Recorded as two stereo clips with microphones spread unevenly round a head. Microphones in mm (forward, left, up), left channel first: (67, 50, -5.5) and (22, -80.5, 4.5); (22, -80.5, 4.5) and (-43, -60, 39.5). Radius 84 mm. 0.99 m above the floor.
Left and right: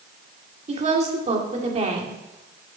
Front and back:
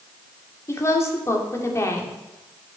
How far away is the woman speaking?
About 2.5 m.